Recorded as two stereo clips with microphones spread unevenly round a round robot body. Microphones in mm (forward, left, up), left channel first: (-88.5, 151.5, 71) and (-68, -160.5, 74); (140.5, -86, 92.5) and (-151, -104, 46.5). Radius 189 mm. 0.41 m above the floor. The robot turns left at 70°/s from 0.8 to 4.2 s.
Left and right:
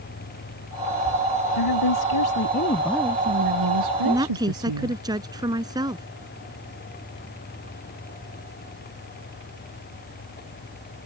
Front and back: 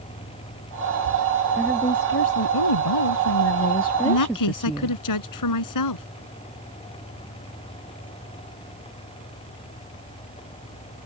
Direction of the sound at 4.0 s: 5° left.